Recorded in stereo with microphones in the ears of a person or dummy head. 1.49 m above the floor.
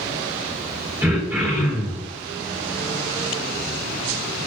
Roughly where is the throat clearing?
Centre.